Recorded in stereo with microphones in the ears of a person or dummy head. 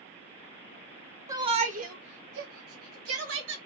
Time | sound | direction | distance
1.3 | a shout | 20° right (ahead or behind) | 0.7 m